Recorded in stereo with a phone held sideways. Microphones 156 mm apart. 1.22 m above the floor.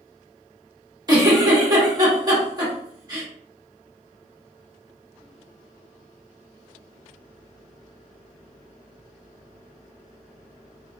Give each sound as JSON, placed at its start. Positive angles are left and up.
{"t": 1.1, "sound": "a giggle", "side_deg": -25, "distance_m": 1.4}